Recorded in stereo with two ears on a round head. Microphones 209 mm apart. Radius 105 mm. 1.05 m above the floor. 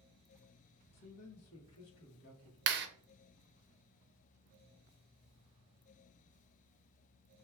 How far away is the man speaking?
About 1.0 m.